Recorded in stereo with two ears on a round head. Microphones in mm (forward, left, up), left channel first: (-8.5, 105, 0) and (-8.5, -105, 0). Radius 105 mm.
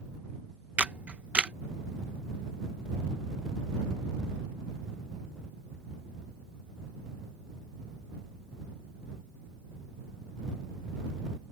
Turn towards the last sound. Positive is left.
turn(degrees=-5)  # may be behind; listen again after turning